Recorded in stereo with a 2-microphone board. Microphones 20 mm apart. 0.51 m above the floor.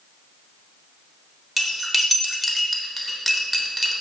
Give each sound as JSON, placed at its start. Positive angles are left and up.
{"t": 1.6, "sound": "cutlery clinking", "side_deg": 0, "distance_m": 1.0}